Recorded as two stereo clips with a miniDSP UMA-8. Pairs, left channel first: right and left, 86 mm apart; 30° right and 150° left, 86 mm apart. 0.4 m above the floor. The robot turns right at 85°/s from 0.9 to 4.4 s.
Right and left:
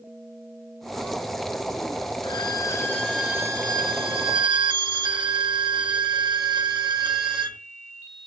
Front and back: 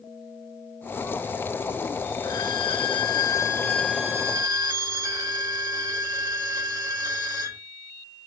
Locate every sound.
2.2 s a violin: 75° right, 0.8 m; by 7.6 s 110° left, 0.8 m